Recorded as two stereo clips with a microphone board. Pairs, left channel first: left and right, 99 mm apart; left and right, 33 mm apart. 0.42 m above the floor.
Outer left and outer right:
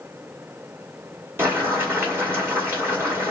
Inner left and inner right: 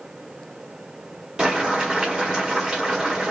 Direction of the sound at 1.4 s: 25° right (ahead or behind).